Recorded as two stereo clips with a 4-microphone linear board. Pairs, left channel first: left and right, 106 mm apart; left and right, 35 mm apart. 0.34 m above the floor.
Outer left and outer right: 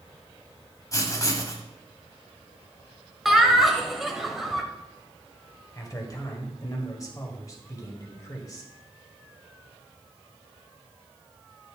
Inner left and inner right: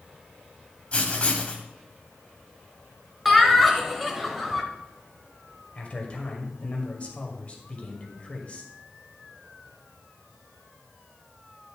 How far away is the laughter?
About 1.5 m.